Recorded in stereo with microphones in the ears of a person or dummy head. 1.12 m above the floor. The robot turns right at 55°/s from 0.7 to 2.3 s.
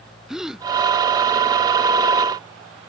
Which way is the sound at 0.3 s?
Centre (ahead or behind).